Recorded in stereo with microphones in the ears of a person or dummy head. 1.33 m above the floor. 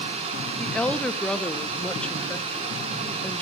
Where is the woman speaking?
10° left (ahead or behind), 0.7 m.